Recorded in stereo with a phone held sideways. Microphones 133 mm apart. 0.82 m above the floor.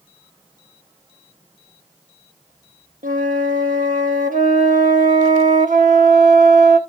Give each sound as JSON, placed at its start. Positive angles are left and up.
{"t": 3.0, "sound": "a flute", "side_deg": -75, "distance_m": 0.8}